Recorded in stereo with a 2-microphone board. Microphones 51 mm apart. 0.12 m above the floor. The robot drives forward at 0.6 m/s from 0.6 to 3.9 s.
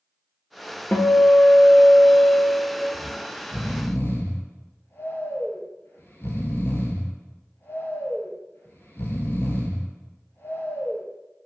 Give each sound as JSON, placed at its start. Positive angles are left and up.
{"t": 0.9, "sound": "a guitar", "side_deg": 35, "distance_m": 0.7}
{"t": 2.9, "sound": "snoring", "side_deg": 50, "distance_m": 0.7}